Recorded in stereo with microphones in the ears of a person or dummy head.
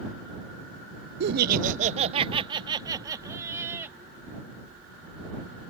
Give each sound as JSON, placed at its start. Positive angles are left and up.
{"t": 1.2, "sound": "laughter", "side_deg": -65}